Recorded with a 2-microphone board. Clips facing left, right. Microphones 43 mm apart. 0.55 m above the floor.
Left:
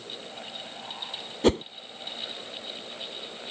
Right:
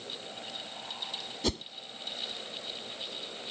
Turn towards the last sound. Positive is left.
turn(degrees=40)  # may be behind; listen again after turning